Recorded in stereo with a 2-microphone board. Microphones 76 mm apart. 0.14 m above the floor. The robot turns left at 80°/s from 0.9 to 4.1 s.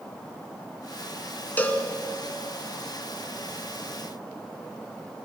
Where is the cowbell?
20° left (ahead or behind), 1.7 m; by 1.9 s 25° left (ahead or behind), 1.7 m.